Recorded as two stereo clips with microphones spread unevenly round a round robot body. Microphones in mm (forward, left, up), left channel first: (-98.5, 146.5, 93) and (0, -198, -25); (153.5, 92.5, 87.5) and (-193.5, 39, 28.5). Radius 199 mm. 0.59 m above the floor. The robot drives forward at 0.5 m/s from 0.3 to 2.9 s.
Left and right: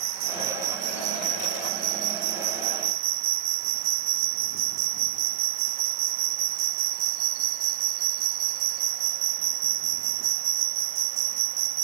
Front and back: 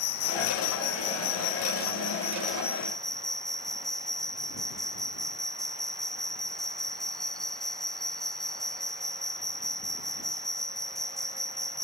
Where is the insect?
40° right; by 11.9 s 80° right.